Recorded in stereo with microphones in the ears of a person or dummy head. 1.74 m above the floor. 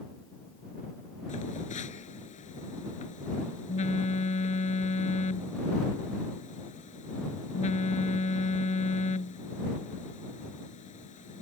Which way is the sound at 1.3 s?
35° left (ahead or behind).